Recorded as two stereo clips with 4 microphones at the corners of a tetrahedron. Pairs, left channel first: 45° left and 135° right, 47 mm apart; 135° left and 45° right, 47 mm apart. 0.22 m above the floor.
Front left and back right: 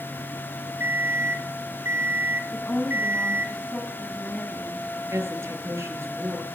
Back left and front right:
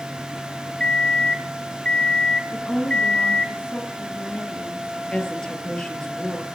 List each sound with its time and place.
0.8 s an alarm clock: 160° right, 1.7 m
2.5 s a woman speaking: 110° left, 2 m
5.1 s a woman speaking: 150° right, 5 m